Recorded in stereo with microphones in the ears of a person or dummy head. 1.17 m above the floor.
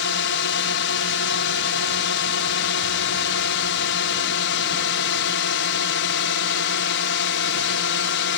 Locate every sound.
0.0 s a drone: 55° left (ahead or behind)